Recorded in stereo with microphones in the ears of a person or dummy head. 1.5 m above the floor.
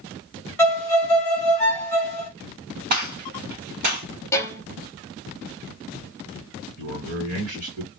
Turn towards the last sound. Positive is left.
turn(degrees=-45)  # may be behind; listen again after turning